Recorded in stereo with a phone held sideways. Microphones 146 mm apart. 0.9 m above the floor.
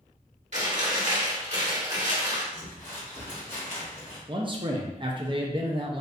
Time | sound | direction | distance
0.5 | chewing | 55° right (ahead or behind) | 1.5 m
2.5 | crumpling | 60° left (ahead or behind) | 1.5 m
4.3 | a man speaking | 35° right (ahead or behind) | 0.5 m